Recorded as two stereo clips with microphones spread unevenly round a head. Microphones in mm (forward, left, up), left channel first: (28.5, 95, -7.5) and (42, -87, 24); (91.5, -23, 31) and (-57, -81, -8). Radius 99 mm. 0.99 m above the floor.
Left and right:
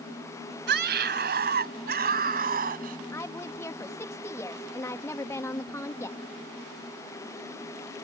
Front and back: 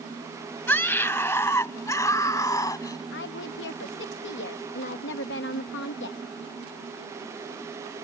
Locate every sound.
0.7 s a scream: 55° right; by 3.0 s 45° right
3.1 s a woman speaking: 25° left